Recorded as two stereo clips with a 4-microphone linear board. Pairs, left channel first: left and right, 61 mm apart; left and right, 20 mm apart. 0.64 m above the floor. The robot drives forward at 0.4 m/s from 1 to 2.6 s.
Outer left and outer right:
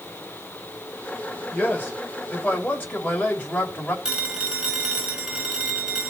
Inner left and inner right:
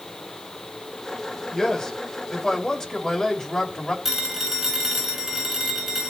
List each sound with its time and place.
1.5 s a man speaking: 35° left (ahead or behind), 3 m; by 4.0 s 30° left (ahead or behind), 3.5 m
4.0 s a phone ringing: 15° right (ahead or behind), 2.5 m